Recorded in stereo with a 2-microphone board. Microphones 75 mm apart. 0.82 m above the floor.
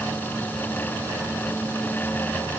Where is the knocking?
No knocking in this recording.